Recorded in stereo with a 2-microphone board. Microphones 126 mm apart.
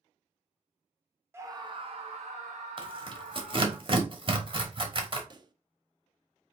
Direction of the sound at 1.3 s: 20° right (ahead or behind).